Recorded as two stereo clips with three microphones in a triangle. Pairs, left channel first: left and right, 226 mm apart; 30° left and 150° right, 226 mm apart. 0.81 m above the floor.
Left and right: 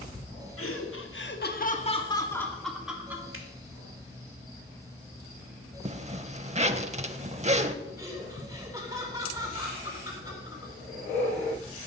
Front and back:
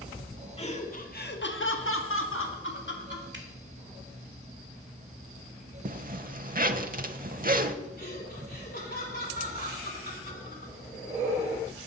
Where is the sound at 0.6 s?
90° left, 1.7 m; by 3.2 s 10° right, 2 m.